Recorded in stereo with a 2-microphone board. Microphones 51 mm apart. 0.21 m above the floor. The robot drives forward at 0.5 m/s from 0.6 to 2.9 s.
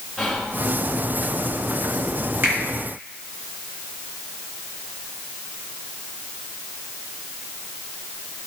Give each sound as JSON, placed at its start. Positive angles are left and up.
{"t": 0.2, "sound": "whispering", "side_deg": -5, "distance_m": 3.5}
{"t": 2.4, "sound": "a finger snap", "side_deg": -40, "distance_m": 3.0}